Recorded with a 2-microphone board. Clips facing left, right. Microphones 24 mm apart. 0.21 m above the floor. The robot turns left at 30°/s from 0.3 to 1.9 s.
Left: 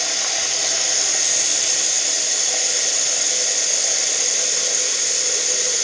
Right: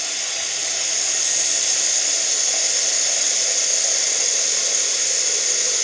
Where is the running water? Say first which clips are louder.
Left 4 dB; 50° left, 0.8 m; by 5.8 s straight ahead, 0.8 m.